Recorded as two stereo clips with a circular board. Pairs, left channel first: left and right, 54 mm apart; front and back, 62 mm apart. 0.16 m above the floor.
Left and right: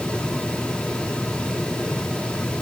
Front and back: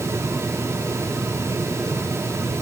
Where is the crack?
I don't hear a crack.